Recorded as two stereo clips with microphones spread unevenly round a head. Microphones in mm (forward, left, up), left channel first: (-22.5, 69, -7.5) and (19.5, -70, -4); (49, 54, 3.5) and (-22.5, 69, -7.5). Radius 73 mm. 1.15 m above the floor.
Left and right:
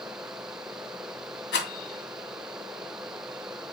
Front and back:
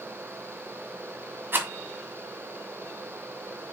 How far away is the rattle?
About 2.5 m.